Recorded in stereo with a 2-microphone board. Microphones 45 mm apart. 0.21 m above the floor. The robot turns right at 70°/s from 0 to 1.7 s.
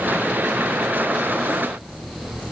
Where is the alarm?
I don't hear an alarm.